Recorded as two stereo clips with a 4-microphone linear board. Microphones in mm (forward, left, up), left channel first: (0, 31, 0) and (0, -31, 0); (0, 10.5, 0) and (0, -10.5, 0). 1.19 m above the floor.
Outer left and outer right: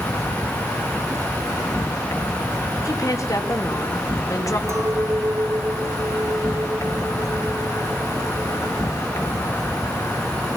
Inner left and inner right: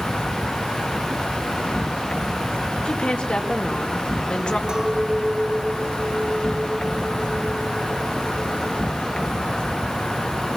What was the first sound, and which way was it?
An insect, 60° left (ahead or behind).